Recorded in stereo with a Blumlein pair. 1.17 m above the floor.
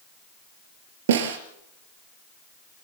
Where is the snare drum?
60° right, 3.5 m.